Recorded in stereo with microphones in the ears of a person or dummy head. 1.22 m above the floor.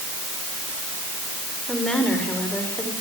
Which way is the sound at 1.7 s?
Centre (ahead or behind).